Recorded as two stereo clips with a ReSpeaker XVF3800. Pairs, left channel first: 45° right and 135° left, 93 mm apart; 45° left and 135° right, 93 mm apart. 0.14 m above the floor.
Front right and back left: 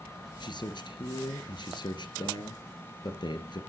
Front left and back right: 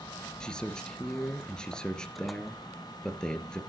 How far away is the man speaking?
About 2 m.